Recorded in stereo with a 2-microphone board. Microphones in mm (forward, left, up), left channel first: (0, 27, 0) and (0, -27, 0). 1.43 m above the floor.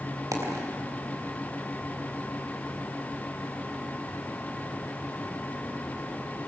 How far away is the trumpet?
I don't hear a trumpet.